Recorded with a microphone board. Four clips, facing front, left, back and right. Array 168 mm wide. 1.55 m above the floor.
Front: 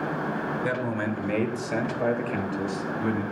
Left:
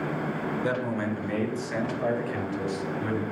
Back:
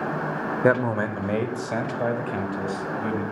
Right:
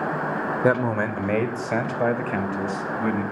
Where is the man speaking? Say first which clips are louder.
Right 9 dB, back 10 dB; 140° right, 0.6 m; by 3.2 s 100° right, 2 m.